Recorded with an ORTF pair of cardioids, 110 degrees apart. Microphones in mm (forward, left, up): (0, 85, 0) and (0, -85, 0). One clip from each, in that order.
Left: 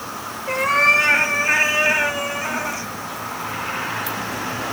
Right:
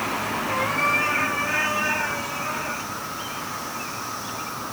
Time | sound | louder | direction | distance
0.5 | a cat meowing | left 8 dB | 60° left | 5 m